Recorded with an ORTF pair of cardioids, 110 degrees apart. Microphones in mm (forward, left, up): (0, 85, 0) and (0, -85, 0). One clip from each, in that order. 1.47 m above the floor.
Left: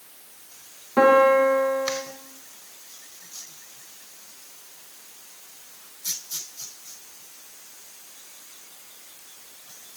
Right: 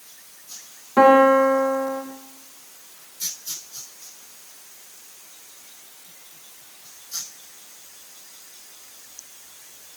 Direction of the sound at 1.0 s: 10° right.